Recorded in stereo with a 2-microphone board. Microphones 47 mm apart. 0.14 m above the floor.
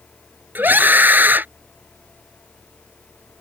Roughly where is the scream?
Right.